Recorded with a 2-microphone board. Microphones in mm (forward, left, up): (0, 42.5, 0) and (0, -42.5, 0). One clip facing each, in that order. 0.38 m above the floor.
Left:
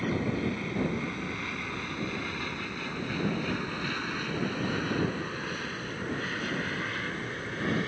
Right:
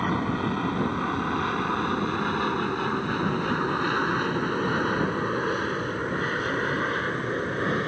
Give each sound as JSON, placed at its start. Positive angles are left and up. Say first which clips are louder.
{"t": 0.0, "sound": "an aircraft", "louder": "right 4 dB", "side_deg": -55}